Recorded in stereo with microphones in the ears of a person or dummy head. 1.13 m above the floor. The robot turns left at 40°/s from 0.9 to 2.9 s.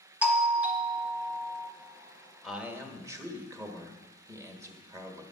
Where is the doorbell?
175° right, 0.8 m; by 1.7 s 155° left, 0.8 m.